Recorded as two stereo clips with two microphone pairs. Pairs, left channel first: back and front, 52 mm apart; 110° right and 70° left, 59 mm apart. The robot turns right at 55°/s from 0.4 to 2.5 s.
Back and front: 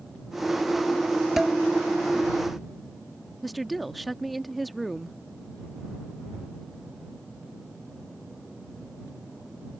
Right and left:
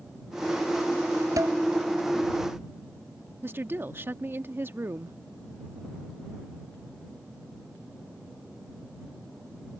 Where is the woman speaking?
90° left.